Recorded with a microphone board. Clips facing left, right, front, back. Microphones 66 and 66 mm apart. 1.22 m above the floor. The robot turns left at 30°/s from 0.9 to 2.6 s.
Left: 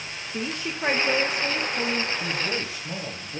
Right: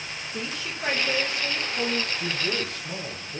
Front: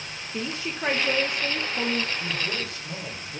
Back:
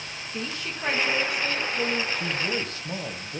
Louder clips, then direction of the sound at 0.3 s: Left 4 dB, front 3 dB; 50° left.